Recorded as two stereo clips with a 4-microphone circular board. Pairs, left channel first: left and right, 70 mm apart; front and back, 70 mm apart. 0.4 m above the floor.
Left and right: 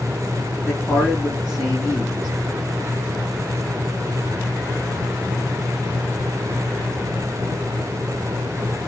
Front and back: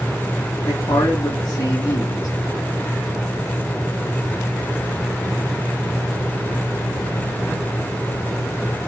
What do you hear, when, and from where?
0.7 s a man speaking: 20° left, 2 m